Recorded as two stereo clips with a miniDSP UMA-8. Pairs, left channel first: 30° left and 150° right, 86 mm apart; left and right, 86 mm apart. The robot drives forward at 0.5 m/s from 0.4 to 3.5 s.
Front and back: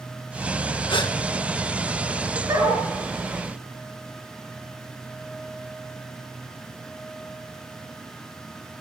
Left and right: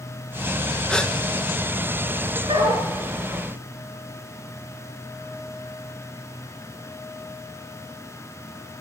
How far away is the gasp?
About 2 m.